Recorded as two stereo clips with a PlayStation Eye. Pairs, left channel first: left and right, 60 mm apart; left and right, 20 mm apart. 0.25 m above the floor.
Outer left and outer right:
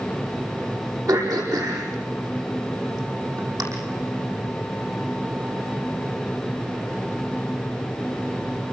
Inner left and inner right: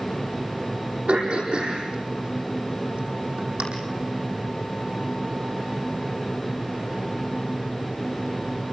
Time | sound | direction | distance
1.1 | throat clearing | 85° right | 9 m